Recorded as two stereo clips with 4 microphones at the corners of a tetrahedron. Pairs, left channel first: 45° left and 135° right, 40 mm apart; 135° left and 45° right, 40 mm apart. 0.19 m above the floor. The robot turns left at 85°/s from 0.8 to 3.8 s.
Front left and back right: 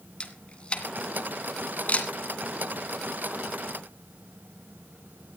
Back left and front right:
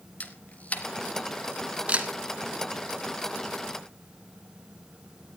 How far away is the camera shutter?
About 2 m.